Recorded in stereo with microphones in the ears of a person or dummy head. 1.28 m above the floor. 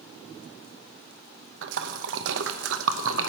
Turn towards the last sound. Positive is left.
turn(degrees=-70)  # may be behind; listen again after turning